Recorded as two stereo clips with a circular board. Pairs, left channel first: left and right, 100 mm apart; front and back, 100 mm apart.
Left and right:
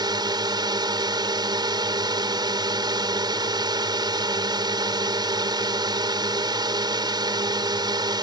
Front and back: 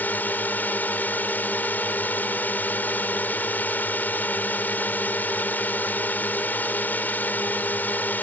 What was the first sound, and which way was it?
A drone, 65° right.